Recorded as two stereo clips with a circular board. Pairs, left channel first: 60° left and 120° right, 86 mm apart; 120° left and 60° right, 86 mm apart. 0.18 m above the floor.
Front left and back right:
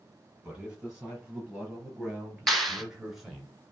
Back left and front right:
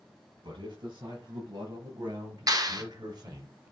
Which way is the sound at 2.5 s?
30° right.